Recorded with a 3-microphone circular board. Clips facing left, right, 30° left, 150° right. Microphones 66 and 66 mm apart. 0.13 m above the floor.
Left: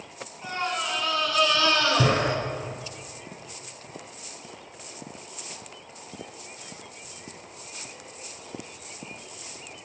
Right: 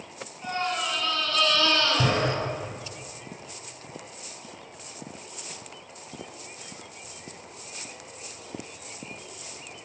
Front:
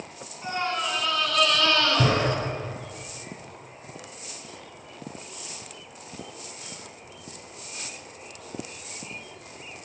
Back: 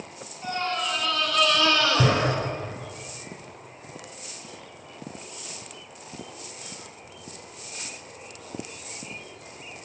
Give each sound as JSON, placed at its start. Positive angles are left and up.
{"t": 0.4, "sound": "a scream", "azimuth_deg": 25, "distance_m": 1.3}